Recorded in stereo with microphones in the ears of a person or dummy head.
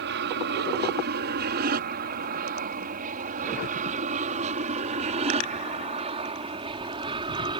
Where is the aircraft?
55° right (ahead or behind); by 7.6 s 20° right (ahead or behind).